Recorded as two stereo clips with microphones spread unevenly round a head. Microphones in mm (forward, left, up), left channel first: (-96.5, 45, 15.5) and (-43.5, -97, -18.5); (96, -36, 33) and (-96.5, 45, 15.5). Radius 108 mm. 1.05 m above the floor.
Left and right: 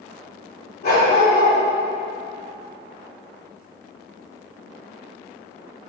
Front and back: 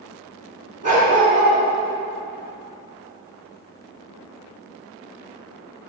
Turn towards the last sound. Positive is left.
turn(degrees=105)